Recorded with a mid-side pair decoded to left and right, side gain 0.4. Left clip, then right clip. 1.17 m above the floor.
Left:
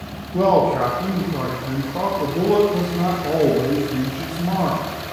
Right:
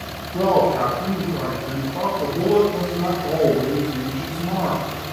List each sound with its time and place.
0.3 s a man speaking: 25° left, 1.3 m